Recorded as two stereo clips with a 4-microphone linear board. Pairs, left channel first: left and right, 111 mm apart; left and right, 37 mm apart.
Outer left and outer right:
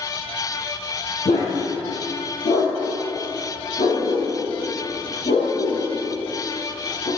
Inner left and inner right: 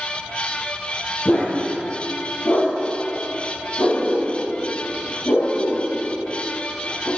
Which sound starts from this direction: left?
A dog barking, at 1.2 s.